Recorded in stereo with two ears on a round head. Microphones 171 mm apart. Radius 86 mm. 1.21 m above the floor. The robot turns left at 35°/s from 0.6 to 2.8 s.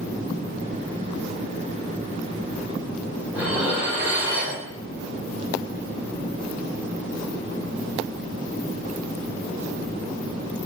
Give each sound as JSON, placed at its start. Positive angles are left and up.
{"t": 3.3, "sound": "dishes clattering", "side_deg": -10, "distance_m": 2.5}